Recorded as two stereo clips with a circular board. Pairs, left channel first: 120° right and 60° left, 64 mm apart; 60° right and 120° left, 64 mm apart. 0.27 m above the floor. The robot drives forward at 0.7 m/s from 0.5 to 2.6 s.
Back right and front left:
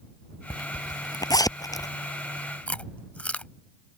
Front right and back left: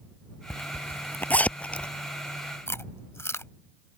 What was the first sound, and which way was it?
A zipper, 110° right.